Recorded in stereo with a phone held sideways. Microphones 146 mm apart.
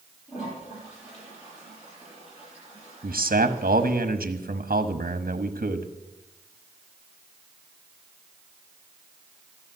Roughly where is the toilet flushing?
Left.